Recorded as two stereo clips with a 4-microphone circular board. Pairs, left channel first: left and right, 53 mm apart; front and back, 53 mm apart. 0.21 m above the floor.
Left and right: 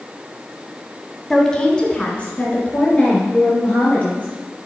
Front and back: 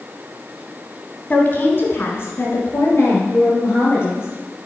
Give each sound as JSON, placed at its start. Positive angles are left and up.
{"t": 1.3, "sound": "a woman speaking", "azimuth_deg": 20, "distance_m": 1.2}